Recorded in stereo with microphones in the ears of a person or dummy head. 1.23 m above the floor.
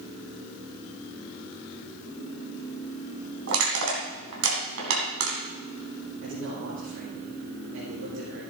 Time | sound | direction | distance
3.5 | crushing | 75° right (ahead or behind) | 3.5 m
6.2 | a man speaking | 75° right (ahead or behind) | 5 m